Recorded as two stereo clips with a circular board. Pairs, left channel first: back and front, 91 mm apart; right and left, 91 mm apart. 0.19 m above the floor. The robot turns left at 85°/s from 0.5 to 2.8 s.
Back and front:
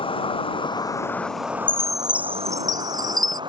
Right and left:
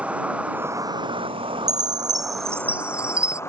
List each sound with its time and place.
0.0 s an insect: 165° left; by 3.5 s 30° right
1.7 s a chime: 110° left; by 3.4 s 15° left